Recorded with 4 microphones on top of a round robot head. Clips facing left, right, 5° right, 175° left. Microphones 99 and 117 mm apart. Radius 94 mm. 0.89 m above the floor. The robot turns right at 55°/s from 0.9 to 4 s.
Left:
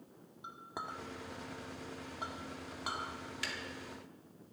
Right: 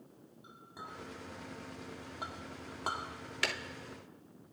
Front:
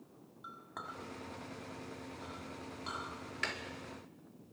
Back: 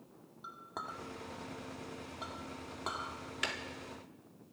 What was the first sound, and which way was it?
A clink, 115° left.